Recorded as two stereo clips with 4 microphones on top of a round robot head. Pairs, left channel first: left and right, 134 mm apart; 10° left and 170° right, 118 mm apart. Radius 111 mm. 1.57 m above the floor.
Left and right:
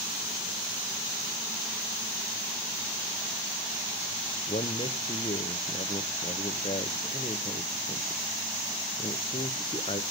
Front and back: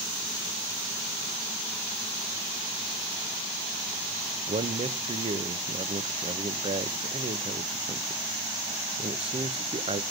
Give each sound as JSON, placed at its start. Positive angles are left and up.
{"t": 4.5, "sound": "a man speaking", "azimuth_deg": 150, "distance_m": 0.8}